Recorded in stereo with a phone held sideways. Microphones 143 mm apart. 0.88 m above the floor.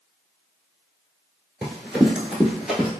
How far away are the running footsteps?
About 0.8 m.